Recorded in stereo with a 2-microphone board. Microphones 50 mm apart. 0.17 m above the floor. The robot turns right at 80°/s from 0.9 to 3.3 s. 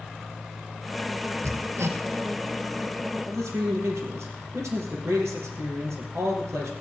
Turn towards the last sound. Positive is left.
turn(degrees=-70)  # may be behind; listen again after turning